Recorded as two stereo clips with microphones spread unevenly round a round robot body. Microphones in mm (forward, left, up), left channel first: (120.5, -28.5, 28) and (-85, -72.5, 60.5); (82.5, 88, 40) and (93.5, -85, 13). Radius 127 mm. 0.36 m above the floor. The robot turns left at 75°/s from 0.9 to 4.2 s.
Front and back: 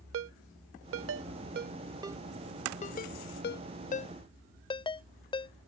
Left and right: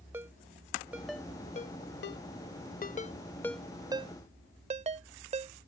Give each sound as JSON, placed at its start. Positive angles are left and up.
{"t": 0.1, "sound": "a ringtone", "azimuth_deg": -160}